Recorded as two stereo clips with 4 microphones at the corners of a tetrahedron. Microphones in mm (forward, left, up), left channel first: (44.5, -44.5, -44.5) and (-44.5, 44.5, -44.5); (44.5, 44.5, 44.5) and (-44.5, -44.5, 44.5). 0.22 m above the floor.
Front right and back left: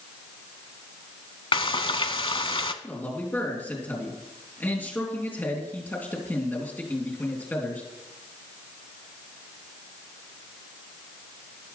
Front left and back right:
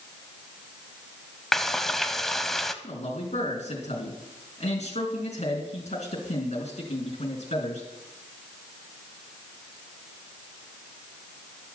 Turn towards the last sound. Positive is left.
turn(degrees=30)